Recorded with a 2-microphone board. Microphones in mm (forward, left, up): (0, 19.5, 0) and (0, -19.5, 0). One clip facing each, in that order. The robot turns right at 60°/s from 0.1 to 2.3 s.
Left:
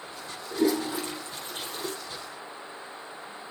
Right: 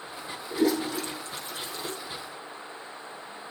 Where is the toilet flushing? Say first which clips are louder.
Even; 5° right (ahead or behind), 5 m; by 1.9 s 75° left (ahead or behind), 5 m.